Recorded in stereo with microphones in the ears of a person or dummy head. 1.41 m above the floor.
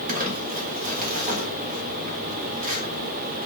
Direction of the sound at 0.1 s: 50° right (ahead or behind).